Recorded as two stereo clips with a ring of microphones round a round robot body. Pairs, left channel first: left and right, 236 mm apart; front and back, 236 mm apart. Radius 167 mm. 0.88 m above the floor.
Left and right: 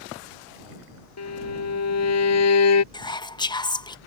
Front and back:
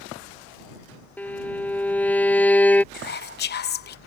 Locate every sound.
1.2 s a violin: 85° left
2.9 s whispering: 25° left